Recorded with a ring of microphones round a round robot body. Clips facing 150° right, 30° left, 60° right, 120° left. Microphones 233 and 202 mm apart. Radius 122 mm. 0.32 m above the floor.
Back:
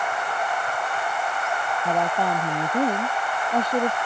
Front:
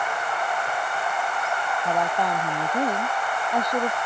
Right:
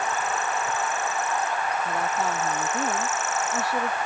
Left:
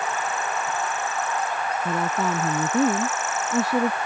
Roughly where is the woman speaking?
Behind left.